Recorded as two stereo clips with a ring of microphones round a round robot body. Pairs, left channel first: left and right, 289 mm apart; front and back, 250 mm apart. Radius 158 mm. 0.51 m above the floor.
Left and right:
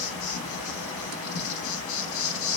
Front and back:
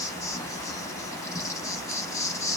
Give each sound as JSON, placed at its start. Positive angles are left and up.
{"t": 0.0, "sound": "an insect", "azimuth_deg": 75, "distance_m": 0.8}